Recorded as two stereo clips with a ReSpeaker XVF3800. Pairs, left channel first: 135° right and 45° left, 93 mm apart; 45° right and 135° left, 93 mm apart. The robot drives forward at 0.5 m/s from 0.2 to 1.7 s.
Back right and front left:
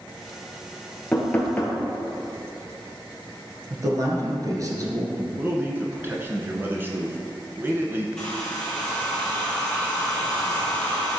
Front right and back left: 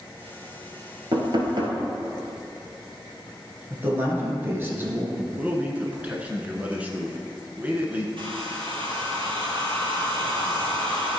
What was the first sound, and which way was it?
Knocking, 150° left.